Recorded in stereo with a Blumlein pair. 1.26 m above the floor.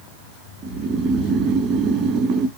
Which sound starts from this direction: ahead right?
Snoring, at 0.6 s.